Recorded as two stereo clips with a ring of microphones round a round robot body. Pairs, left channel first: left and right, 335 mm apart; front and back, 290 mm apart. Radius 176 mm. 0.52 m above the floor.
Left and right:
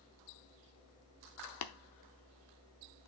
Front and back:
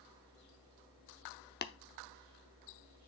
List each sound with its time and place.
1.6 s tapping: 55° left, 0.7 m